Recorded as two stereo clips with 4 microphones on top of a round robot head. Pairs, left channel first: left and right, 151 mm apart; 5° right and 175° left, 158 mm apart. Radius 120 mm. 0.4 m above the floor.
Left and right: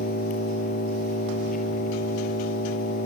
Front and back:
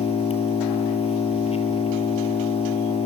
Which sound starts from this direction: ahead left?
An engine running, at 0.0 s.